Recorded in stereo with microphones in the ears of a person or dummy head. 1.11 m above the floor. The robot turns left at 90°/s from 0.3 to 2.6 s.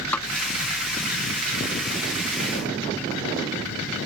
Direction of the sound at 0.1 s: 10° left (ahead or behind).